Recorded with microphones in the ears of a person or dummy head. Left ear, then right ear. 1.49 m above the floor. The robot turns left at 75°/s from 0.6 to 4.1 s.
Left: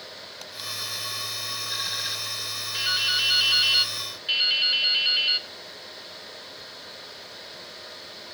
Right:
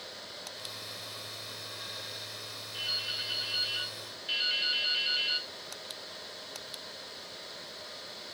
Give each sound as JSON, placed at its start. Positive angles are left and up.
{"t": 2.7, "sound": "dripping", "azimuth_deg": 120, "distance_m": 1.0}